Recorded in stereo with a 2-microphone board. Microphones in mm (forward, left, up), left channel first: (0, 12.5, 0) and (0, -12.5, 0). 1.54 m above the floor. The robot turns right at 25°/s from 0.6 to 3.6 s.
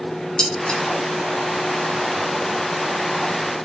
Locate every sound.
0.4 s dishes clattering: 30° left (ahead or behind), 1.1 m